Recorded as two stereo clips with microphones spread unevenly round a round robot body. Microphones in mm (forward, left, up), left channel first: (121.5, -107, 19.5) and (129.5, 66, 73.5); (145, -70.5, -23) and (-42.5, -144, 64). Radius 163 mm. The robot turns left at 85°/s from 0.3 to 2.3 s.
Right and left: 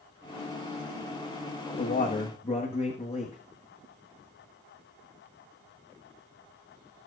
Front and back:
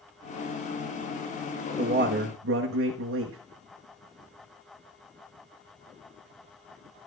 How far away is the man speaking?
About 1.1 m.